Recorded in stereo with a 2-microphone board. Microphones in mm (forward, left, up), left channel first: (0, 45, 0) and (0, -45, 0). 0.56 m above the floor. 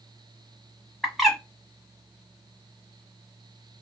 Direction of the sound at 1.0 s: Centre (ahead or behind).